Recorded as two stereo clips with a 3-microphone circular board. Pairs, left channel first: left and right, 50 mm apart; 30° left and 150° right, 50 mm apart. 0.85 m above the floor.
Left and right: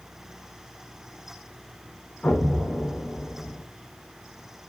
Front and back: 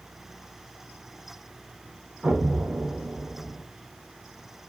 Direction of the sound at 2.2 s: 150° left.